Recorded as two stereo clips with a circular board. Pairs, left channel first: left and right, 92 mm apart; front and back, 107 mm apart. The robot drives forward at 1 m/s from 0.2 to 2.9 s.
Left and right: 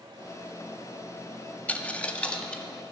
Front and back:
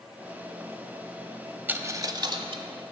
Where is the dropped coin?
135° left, 0.9 m; by 2.6 s 170° left, 1.5 m.